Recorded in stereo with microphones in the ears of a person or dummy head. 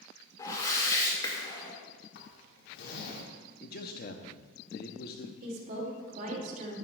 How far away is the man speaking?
About 0.8 m.